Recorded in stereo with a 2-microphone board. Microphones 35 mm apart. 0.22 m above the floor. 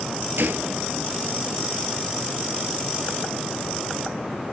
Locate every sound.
0.4 s a gunshot: 80° right, 1.0 m